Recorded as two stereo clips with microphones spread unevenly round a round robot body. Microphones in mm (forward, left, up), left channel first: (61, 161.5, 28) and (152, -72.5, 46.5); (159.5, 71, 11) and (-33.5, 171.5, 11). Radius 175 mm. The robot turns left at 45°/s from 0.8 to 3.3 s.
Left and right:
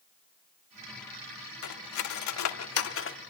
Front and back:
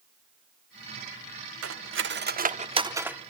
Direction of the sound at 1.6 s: 135° left.